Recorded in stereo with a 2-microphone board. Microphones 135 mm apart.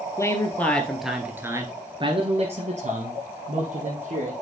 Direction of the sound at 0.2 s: 20° left (ahead or behind).